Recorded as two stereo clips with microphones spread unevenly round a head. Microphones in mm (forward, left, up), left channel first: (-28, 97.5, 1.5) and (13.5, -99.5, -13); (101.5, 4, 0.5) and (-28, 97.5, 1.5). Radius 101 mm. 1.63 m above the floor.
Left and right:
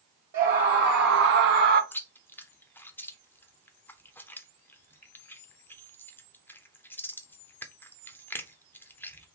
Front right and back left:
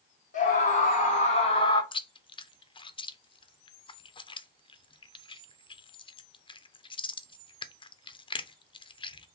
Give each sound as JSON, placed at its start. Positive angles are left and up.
{"t": 0.3, "sound": "a scream", "azimuth_deg": -35, "distance_m": 0.9}
{"t": 1.9, "sound": "chewing", "azimuth_deg": 20, "distance_m": 0.6}